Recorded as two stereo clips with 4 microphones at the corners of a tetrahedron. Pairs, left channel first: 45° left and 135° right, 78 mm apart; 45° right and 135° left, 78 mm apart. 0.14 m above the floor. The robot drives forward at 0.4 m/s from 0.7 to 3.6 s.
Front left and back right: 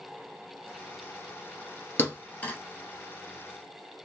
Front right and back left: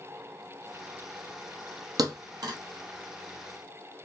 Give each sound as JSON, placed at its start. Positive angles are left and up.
{"t": 2.0, "sound": "a thud", "azimuth_deg": 110, "distance_m": 1.5}